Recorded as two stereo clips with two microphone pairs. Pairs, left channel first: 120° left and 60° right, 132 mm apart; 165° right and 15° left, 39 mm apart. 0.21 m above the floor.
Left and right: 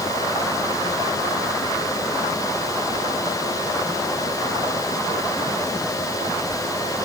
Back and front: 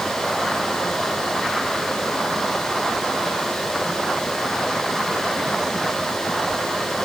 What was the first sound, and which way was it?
Only background noise.